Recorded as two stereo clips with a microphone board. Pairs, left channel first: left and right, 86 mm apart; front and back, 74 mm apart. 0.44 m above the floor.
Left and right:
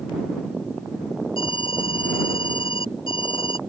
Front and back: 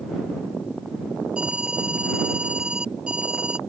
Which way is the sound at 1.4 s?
105° left.